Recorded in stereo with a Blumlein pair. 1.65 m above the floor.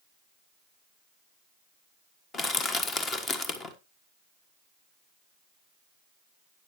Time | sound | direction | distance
2.3 | crushing | 20° left | 1.4 m